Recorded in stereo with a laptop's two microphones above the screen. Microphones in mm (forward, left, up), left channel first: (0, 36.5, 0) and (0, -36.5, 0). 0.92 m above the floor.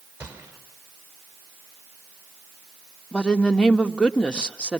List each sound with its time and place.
0.2 s a gunshot: 20° right (ahead or behind), 4.5 m
3.1 s a woman speaking: 15° left (ahead or behind), 1.4 m